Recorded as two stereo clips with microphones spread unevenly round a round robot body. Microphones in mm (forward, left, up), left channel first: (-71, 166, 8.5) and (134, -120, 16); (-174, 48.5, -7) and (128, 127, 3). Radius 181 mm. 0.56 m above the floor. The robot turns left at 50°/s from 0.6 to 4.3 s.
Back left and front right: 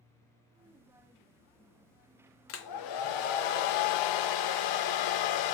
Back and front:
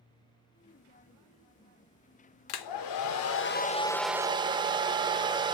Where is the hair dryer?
175° right, 0.5 m; by 5.5 s 95° left, 0.5 m.